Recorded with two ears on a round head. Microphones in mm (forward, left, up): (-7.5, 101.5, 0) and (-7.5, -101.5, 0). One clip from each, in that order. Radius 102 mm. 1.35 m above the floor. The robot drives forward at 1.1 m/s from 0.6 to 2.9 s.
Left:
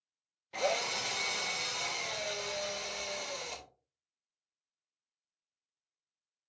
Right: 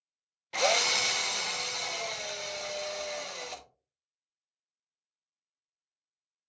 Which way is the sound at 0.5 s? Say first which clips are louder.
Right 7 dB; 40° right (ahead or behind).